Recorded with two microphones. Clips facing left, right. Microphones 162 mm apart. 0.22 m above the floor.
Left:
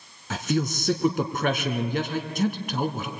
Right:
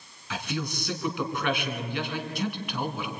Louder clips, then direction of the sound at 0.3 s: Left 7 dB; 45° left (ahead or behind).